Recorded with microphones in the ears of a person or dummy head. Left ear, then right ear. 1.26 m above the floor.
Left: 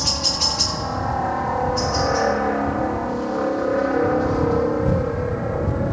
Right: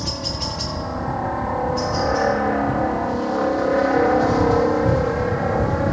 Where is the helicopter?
15° left (ahead or behind); by 5.9 s 40° right (ahead or behind).